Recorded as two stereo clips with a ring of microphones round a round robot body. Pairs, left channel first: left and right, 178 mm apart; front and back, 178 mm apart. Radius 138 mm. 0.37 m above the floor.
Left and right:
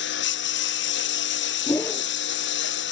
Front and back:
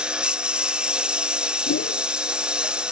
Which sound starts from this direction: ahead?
A whoosh, at 1.7 s.